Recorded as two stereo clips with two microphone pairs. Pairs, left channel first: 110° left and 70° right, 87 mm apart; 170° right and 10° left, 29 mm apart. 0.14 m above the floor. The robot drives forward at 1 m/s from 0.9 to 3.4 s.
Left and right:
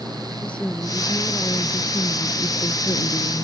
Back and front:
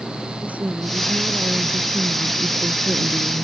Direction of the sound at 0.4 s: 35° left.